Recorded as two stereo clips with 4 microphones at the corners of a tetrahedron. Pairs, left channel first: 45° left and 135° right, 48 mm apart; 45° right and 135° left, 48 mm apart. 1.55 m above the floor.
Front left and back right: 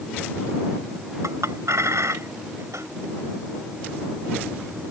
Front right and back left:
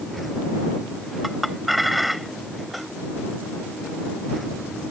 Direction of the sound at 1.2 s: 135° right.